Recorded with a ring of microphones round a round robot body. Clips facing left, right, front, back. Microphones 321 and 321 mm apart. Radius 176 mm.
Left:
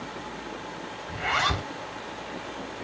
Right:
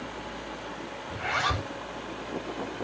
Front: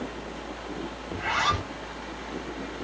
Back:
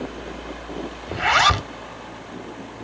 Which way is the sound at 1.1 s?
175° left.